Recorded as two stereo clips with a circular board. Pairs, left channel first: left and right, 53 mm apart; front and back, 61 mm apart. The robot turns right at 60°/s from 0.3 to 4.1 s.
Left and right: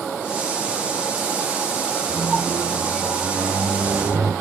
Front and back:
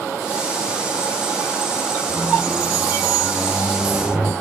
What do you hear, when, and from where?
2.1 s a squeak: 125° left, 1.0 m; by 4.3 s 115° right, 1.0 m